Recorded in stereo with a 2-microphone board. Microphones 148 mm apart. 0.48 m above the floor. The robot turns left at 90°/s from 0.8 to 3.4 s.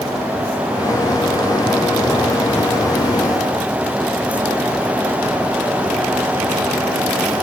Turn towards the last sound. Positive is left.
No sound to turn to.